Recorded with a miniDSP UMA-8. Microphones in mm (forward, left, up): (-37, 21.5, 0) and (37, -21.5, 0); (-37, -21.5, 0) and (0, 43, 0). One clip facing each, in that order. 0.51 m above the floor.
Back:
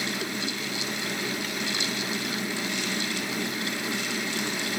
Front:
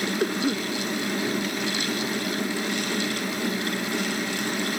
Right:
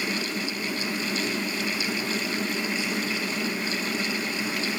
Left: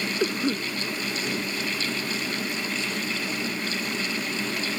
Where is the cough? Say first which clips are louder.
Front 7 dB, left 5 dB; 15° left.